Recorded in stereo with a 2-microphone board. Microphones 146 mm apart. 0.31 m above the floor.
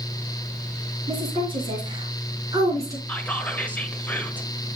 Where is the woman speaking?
40° right (ahead or behind), 4.5 m; by 3.0 s 20° right (ahead or behind), 4 m.